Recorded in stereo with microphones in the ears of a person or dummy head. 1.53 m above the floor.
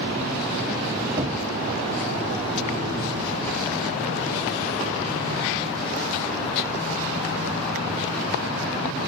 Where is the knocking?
10° right (ahead or behind), 0.5 m.